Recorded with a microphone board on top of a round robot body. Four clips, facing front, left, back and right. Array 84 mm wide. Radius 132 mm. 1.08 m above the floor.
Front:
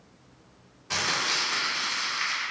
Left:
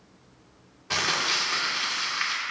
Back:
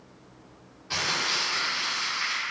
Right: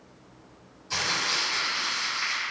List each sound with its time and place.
0.9 s crumpling: 75° left, 1.9 m